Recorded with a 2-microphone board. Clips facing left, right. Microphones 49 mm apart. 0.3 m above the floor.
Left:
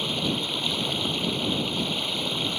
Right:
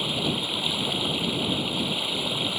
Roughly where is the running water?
Centre.